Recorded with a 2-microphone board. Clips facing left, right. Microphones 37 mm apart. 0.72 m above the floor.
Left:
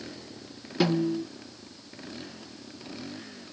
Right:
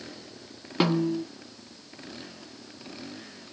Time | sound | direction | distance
0.8 | a snare drum | 40° right (ahead or behind) | 2 m